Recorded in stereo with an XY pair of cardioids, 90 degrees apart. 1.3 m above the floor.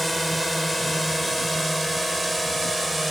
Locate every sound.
0.0 s a drone: straight ahead; by 3.1 s 5° right